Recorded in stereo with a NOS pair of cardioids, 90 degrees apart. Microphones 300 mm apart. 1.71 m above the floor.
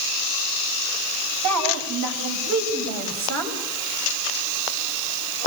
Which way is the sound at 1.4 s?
65° right.